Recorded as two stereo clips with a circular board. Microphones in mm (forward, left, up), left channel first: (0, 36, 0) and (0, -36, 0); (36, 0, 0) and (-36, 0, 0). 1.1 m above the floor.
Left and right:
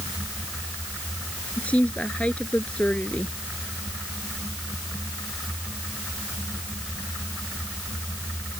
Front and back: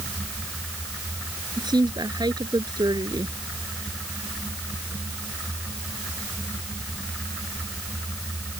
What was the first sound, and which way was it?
A woman speaking, 165° left.